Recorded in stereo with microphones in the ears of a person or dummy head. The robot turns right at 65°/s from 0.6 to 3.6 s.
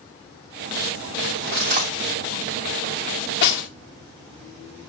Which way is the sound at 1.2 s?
70° right (ahead or behind).